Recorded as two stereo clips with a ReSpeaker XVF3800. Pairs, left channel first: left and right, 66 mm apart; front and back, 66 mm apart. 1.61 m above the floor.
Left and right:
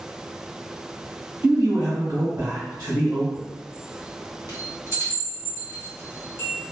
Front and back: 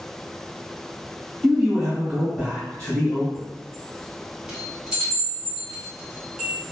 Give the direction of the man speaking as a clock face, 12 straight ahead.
3 o'clock.